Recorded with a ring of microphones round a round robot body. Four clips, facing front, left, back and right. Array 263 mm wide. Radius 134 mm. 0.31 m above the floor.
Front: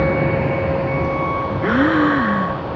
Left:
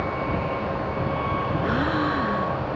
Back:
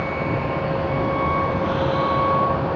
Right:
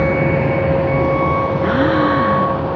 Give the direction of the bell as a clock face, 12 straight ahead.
I don't hear a bell.